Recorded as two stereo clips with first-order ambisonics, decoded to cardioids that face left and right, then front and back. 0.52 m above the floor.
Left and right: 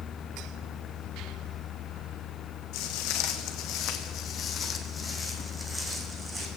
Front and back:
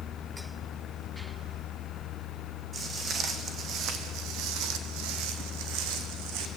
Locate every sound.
2.7 s footsteps: 110° left, 1.8 m; by 6.5 s 165° right, 2 m